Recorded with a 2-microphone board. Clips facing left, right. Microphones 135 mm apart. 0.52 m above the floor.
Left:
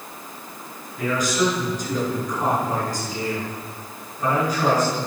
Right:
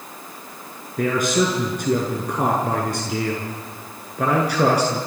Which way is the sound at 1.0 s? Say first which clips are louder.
Right 2 dB; 55° right (ahead or behind).